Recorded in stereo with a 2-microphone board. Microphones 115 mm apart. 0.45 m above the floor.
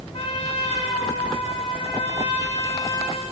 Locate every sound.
0.1 s a trumpet: 80° left, 1.3 m